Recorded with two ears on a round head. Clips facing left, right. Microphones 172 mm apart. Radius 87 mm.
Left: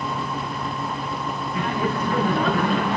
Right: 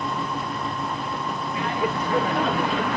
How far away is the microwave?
I don't hear a microwave.